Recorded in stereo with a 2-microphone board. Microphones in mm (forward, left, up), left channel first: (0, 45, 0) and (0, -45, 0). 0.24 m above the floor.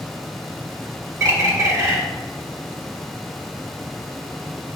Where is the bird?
35° right (ahead or behind), 1.2 m.